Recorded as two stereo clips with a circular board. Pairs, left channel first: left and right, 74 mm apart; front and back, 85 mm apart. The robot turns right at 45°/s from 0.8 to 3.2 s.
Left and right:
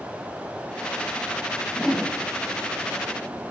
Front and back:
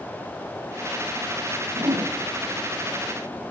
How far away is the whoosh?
About 4.5 m.